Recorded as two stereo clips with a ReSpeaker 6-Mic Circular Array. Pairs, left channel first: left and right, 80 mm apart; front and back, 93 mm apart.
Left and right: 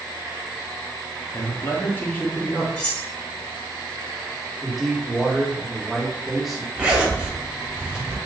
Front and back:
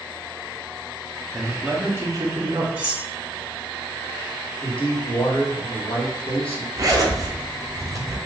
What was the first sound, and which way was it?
A man speaking, 80° left.